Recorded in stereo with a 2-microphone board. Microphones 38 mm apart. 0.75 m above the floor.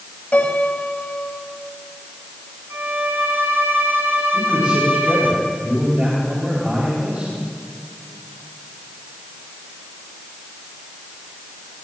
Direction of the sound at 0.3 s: 35° left (ahead or behind).